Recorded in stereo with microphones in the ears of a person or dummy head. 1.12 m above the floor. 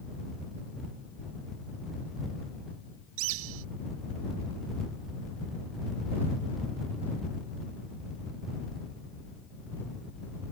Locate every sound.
3.2 s a bird: 75° right (ahead or behind)